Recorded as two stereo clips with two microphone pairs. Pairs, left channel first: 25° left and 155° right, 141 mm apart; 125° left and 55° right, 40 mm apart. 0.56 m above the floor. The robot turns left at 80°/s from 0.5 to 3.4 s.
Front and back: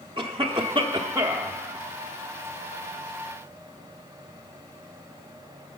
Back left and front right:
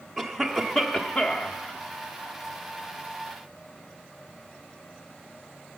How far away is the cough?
About 1.0 m.